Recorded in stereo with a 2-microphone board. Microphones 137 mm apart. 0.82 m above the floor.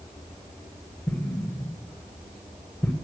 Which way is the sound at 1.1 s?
10° left (ahead or behind).